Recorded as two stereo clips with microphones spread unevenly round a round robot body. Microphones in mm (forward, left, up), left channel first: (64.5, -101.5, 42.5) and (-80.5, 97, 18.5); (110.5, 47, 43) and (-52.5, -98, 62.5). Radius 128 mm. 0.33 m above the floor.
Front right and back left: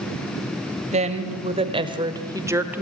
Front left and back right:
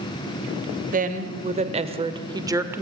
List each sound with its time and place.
0.9 s a woman speaking: 175° left, 2 m; by 2.8 s 145° left, 1.3 m